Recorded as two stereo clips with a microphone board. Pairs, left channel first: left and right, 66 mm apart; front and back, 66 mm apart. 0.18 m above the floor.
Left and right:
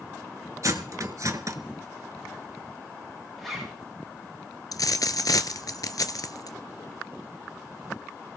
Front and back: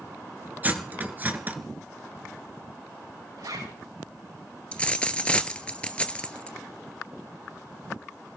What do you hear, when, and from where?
0.6 s cutlery clinking: 120° right, 1.3 m
3.4 s a zipper: 175° left, 7.5 m
4.7 s a dropped coin: 70° left, 0.9 m